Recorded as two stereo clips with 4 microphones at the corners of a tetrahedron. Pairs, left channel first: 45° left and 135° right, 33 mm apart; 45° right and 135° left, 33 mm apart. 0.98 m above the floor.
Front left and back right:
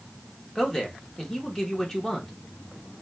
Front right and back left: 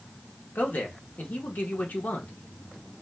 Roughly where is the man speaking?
Ahead right.